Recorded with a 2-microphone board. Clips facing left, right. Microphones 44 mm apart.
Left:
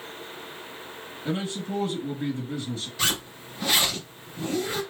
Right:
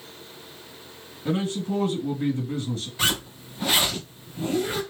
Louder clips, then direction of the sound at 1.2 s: Right 4 dB; 45° right (ahead or behind).